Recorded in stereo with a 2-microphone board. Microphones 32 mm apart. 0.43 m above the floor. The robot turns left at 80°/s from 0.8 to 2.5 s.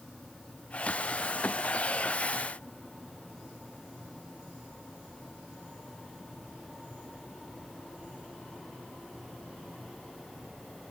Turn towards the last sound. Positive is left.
No sound to turn to.